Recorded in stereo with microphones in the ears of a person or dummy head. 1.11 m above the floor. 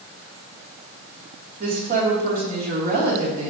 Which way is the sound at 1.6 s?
55° right (ahead or behind).